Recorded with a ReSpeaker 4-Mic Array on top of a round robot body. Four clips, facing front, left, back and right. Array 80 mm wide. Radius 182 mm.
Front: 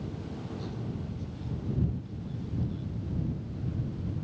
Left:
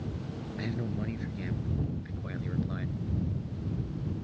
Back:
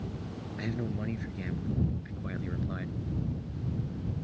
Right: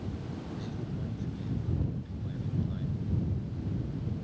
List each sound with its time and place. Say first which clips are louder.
0.6 s a man speaking: left 4 dB, back 3 dB; 150° left